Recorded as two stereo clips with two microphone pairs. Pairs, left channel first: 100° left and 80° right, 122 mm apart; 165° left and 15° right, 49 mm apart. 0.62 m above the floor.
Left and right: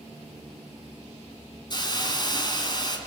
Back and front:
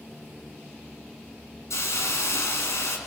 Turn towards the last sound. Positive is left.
turn(degrees=155)